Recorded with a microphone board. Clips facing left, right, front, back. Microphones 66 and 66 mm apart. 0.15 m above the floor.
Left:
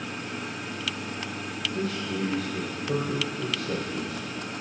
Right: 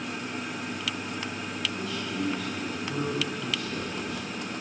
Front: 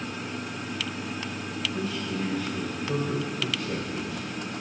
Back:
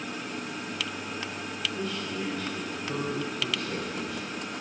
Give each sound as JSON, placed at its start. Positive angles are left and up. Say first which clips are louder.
{"t": 1.7, "sound": "a man speaking", "louder": "left 5 dB, front 3 dB", "azimuth_deg": 85, "distance_m": 3.0}